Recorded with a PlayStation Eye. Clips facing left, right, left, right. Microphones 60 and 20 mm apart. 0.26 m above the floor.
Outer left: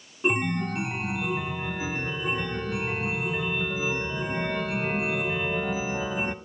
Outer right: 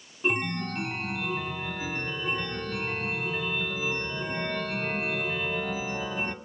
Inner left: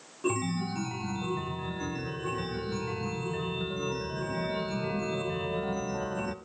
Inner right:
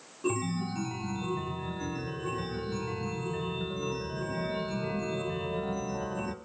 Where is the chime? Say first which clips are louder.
Outer left 3 dB, inner left 1 dB; 10° left (ahead or behind), 0.6 m.